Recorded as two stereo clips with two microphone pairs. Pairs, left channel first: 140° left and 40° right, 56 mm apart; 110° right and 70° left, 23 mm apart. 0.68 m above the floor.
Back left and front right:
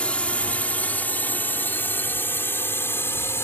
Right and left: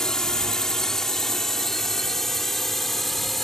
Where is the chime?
I don't hear a chime.